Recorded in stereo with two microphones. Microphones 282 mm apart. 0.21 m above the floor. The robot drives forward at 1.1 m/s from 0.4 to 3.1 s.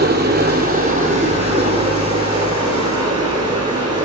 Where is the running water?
35° right (ahead or behind), 2.5 m; by 4.0 s 15° right (ahead or behind), 5 m.